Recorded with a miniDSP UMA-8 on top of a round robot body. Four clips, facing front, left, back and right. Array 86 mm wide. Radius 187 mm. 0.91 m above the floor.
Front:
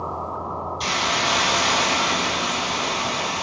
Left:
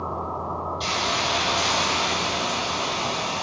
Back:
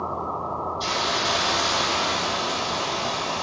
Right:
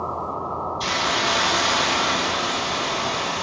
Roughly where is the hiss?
Ahead.